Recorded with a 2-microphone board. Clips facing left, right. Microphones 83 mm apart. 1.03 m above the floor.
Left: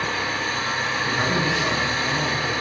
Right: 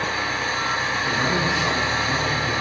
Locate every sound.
0.0 s an engine running: 20° right (ahead or behind), 6.5 m
1.0 s a man speaking: 15° left (ahead or behind), 6.5 m